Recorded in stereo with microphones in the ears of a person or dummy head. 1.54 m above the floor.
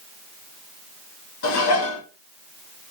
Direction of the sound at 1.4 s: 70° left (ahead or behind).